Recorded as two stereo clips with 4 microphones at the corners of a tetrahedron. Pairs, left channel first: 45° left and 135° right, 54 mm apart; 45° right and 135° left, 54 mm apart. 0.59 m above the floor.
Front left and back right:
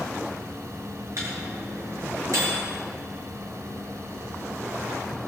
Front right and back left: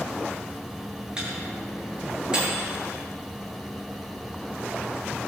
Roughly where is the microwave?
Behind right.